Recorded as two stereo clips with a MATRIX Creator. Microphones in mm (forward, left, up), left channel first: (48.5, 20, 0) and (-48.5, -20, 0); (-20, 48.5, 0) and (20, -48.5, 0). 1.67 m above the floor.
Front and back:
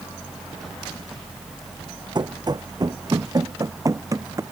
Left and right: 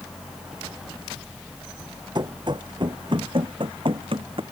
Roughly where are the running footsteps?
Right.